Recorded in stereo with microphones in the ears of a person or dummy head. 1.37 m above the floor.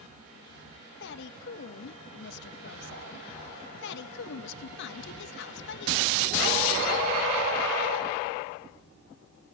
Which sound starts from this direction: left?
A woman speaking, at 1.0 s.